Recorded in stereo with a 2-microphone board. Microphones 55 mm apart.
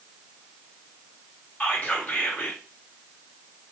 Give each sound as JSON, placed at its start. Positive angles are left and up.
{"t": 1.6, "sound": "whispering", "side_deg": 30, "distance_m": 0.8}